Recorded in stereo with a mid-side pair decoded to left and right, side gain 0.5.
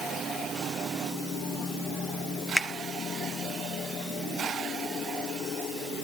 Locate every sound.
2.6 s a finger snap: 5° right, 1.0 m